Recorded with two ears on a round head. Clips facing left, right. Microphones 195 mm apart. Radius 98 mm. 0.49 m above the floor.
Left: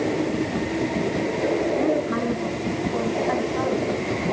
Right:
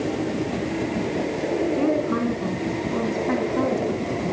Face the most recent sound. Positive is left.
turn(degrees=-45)  # may be behind; listen again after turning